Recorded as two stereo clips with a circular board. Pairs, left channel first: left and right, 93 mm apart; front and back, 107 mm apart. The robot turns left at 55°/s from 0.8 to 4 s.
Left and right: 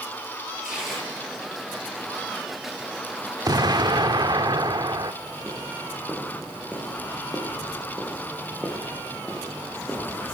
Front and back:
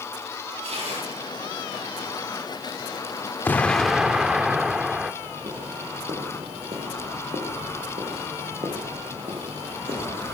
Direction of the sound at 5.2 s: 165° left.